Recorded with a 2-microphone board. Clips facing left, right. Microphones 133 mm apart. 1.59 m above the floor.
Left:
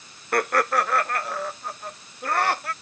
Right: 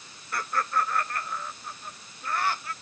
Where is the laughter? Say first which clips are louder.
Left 7 dB; 65° left (ahead or behind); by 2.7 s 75° left (ahead or behind).